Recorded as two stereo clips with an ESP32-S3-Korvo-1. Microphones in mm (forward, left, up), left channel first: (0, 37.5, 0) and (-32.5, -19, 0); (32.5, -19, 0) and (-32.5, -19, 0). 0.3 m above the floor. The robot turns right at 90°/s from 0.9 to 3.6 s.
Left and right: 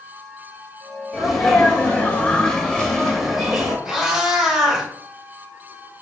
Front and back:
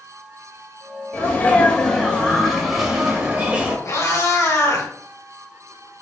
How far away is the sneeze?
About 0.9 m.